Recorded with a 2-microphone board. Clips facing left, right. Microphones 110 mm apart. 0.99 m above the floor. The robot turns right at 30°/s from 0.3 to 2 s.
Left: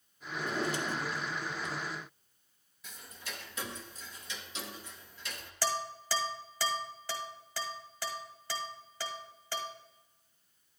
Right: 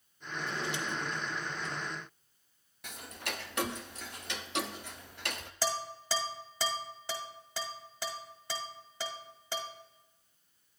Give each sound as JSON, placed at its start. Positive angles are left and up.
{"t": 0.3, "sound": "a drawer", "azimuth_deg": 125, "distance_m": 0.9}
{"t": 2.8, "sound": "ticking", "side_deg": -65, "distance_m": 0.5}
{"t": 5.6, "sound": "dishes clattering", "side_deg": -20, "distance_m": 1.5}